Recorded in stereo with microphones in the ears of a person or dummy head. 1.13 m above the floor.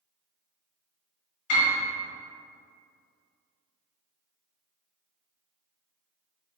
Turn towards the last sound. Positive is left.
turn(degrees=70)  # may be behind; listen again after turning